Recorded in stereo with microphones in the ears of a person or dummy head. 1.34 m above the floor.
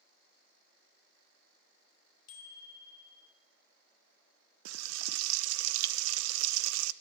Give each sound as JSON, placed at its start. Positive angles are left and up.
{"t": 2.3, "sound": "a bicycle bell", "side_deg": 20, "distance_m": 5.0}
{"t": 4.7, "sound": "frying", "side_deg": -80, "distance_m": 0.8}